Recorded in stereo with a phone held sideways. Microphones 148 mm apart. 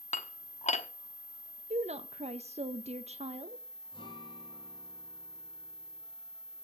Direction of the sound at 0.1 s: 55° left (ahead or behind).